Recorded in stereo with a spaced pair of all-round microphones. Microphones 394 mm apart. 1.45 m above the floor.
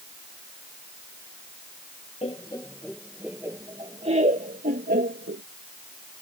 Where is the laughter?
15° left (ahead or behind); by 5.4 s 30° right (ahead or behind).